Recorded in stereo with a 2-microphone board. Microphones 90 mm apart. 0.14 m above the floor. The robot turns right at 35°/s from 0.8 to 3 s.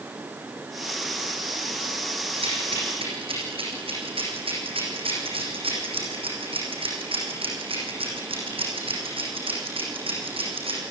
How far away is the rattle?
About 6.5 m.